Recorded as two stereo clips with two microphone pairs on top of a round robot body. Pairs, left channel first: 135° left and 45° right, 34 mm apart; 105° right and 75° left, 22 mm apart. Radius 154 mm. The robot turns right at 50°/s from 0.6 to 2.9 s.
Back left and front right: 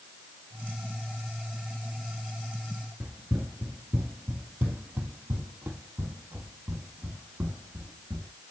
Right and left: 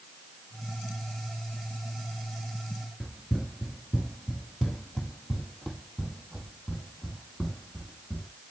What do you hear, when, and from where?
3.0 s running footsteps: 40° right, 1.0 m; by 8.3 s 30° right, 3 m